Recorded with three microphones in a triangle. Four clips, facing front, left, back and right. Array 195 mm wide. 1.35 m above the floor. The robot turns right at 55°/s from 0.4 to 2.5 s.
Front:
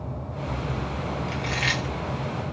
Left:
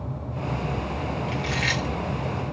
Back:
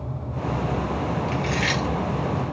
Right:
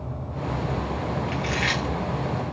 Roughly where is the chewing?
Right.